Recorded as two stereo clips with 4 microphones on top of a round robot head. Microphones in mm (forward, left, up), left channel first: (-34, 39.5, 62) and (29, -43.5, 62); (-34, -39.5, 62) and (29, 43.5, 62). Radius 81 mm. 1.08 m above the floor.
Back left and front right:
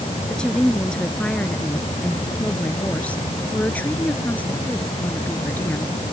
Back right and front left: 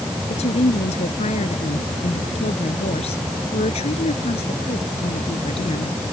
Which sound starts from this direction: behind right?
A woman speaking, at 0.3 s.